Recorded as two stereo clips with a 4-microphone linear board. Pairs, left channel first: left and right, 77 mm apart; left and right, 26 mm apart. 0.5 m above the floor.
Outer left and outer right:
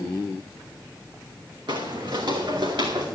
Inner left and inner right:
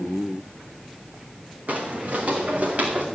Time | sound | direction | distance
1.7 | footsteps | 75° right (ahead or behind) | 2.5 m